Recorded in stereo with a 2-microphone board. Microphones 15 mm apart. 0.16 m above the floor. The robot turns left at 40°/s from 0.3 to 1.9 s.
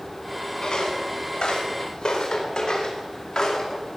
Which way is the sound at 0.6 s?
65° left (ahead or behind).